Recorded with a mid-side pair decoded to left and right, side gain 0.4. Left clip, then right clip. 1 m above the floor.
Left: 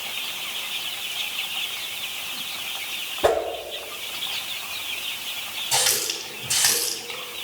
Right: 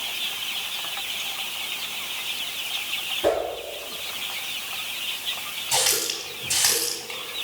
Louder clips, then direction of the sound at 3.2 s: Left 3 dB; 55° left.